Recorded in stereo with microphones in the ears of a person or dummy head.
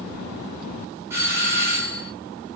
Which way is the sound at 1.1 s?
10° right (ahead or behind).